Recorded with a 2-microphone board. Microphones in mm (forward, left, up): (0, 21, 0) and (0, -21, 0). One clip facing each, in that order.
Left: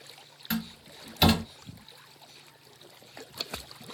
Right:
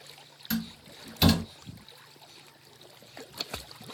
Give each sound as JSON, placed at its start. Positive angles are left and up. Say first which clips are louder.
{"t": 0.5, "sound": "a door slam", "louder": "even", "side_deg": 30, "distance_m": 1.3}